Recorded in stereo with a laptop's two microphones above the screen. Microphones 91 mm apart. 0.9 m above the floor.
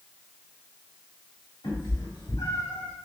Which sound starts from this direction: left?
A cat meowing, at 1.6 s.